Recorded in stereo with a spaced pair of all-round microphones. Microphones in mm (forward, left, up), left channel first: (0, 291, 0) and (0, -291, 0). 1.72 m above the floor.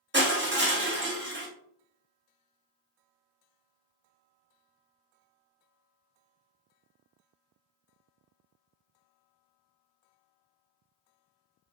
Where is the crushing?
20° right (ahead or behind), 0.8 m.